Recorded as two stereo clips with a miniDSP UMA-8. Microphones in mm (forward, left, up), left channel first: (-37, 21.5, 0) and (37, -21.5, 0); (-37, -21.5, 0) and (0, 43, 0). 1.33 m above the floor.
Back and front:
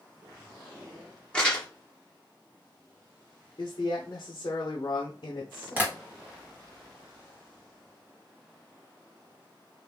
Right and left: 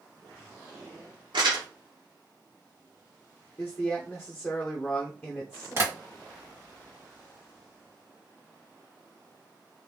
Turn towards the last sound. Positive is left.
turn(degrees=30)